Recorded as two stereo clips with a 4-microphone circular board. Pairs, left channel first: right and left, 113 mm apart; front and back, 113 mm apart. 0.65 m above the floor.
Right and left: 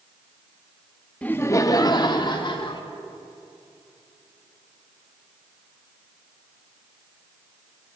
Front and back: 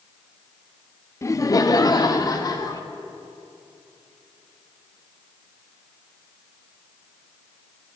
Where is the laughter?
25° right, 0.5 m; by 2.8 s 50° right, 1.5 m.